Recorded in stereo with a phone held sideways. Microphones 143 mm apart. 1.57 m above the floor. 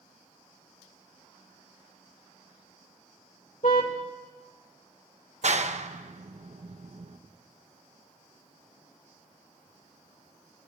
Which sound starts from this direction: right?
A clap, at 5.4 s.